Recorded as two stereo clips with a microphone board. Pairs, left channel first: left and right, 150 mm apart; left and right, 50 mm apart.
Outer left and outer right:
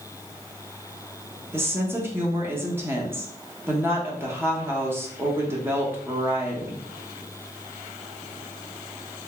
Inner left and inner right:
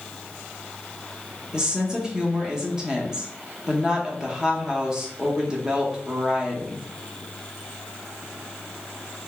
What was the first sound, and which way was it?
A woman speaking, 15° right (ahead or behind).